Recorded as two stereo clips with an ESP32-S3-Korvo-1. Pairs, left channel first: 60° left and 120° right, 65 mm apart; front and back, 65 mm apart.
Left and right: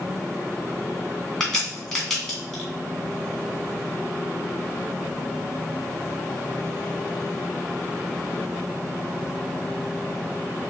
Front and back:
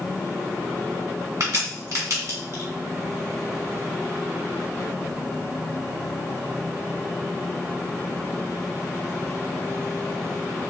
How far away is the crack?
About 2.5 m.